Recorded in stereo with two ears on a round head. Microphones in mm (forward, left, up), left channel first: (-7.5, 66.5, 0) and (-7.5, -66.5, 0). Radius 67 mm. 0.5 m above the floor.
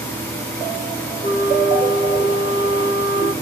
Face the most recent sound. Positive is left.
turn(degrees=30)  # may be behind; listen again after turning